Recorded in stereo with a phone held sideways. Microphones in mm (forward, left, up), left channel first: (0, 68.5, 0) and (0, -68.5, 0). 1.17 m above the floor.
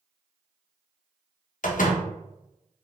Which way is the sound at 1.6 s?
80° left.